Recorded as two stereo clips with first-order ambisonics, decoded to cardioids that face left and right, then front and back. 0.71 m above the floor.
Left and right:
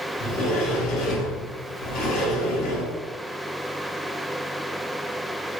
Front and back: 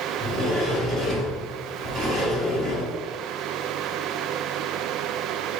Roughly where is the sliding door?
Behind left.